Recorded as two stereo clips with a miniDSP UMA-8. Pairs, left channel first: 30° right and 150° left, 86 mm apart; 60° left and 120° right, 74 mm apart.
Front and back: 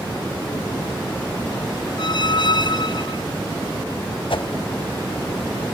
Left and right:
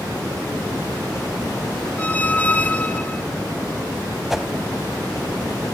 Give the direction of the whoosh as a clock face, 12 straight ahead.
1 o'clock.